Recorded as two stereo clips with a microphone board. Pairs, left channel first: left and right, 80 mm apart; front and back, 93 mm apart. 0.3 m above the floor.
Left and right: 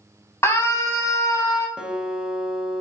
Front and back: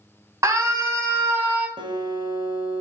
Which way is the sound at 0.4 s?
135° left.